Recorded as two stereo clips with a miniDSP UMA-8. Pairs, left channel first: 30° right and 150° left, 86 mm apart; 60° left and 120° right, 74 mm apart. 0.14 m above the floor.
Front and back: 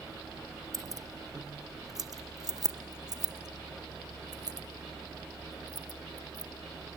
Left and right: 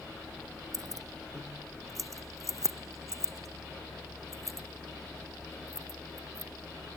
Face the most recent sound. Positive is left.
turn(degrees=-170)